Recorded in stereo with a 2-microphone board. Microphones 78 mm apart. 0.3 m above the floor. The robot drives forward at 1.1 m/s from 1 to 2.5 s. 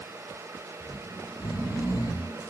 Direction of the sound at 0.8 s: 50° left (ahead or behind).